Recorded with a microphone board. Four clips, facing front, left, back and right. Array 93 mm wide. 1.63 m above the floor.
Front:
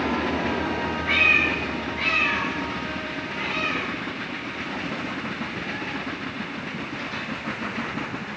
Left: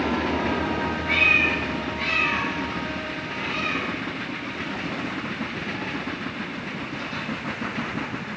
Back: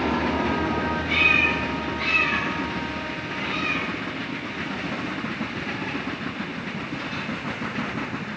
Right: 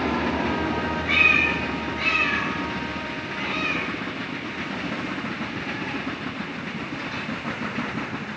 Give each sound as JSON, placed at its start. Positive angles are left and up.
{"t": 1.1, "sound": "a cat meowing", "azimuth_deg": -15, "distance_m": 3.0}